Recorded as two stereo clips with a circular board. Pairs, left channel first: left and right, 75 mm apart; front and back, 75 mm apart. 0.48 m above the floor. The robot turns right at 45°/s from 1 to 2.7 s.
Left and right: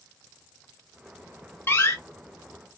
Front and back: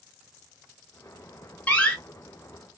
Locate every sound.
1.7 s a door slam: 55° left, 0.6 m; by 2.0 s 70° left, 0.6 m